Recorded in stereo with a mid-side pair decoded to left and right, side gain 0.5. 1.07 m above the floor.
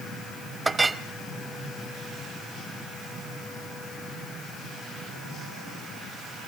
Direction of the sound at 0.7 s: 25° right.